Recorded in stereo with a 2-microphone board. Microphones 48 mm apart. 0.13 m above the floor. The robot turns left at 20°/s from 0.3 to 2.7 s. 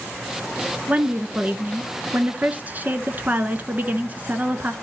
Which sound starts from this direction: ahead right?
A woman speaking, at 0.9 s.